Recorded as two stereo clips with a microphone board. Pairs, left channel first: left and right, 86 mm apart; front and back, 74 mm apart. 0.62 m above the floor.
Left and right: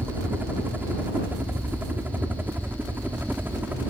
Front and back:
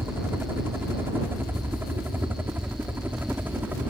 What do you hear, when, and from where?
0.0 s a helicopter: 145° right; by 3.9 s 140° right